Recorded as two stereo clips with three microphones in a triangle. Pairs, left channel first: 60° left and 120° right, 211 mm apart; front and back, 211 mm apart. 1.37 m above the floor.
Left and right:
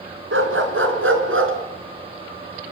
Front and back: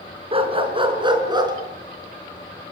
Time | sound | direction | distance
0.3 | a dog barking | 120° right | 4 m